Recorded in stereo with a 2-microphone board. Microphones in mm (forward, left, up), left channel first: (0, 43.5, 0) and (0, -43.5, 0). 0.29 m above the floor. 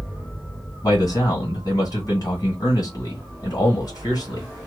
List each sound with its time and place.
0.8 s a man speaking: 45° left (ahead or behind), 1.5 m